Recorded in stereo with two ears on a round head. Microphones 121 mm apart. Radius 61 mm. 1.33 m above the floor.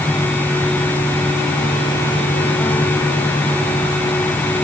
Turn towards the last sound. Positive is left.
No sound to turn to.